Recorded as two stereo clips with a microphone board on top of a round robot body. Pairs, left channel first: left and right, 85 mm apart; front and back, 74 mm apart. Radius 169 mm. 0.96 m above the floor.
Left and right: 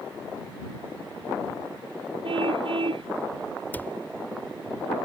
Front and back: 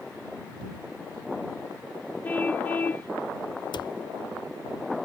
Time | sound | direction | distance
2.2 | a car horn | 70° right | ?
3.7 | a cupboard door | 20° left | ?